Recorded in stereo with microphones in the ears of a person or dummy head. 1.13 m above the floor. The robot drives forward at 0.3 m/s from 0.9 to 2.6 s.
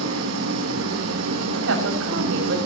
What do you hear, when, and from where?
0.0 s an engine running: 80° right, 3.5 m; by 2.7 s 85° right, 3.5 m
1.5 s a woman speaking: 75° right (ahead or behind), 6.5 m; by 2.6 s 70° right (ahead or behind), 6.5 m